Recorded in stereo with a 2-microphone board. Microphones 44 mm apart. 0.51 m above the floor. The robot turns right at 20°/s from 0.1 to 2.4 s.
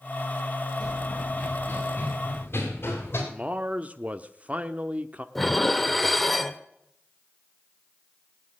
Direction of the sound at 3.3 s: 35° right (ahead or behind).